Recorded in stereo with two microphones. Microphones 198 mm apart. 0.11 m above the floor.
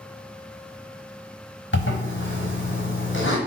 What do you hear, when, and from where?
1.7 s a zipper: 75° left (ahead or behind), 1.0 m